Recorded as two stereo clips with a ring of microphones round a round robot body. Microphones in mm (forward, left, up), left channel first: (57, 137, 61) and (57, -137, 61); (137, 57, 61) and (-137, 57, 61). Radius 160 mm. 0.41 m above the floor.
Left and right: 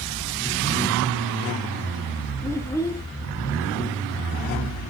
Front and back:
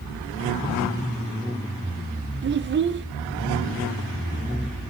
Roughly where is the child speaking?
Behind.